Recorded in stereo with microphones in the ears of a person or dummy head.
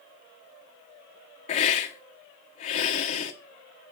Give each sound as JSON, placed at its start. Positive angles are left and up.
{"t": 1.5, "sound": "a hiss", "side_deg": 45, "distance_m": 1.2}